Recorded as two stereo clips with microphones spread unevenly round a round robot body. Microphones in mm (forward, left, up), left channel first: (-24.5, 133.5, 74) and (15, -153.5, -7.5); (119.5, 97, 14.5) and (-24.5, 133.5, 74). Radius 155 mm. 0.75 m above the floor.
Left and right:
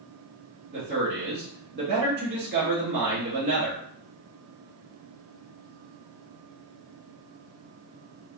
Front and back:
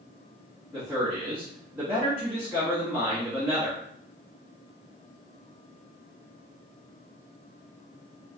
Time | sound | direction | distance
0.7 | a man speaking | 95° right | 1.2 m